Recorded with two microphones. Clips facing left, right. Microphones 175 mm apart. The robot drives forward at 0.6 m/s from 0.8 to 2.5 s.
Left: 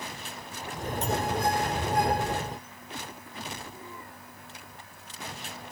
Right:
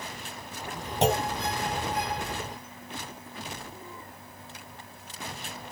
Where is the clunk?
85° right.